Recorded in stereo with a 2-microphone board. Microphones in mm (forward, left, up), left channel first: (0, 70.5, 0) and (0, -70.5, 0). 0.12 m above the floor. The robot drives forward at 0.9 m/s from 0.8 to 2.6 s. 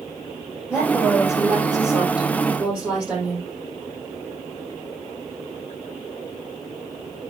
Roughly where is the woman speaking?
Centre.